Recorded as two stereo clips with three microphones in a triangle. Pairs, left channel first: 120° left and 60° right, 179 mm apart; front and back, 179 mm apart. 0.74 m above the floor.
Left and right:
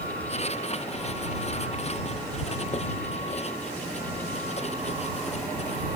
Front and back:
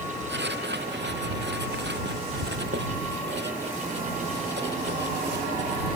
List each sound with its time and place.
0.3 s writing: 175° left